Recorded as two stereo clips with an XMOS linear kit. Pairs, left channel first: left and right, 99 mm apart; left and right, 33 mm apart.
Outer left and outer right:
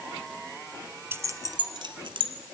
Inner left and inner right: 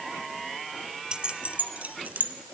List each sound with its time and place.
1.1 s keys jangling: 25° right (ahead or behind), 0.8 m; by 2.3 s 60° right (ahead or behind), 1.5 m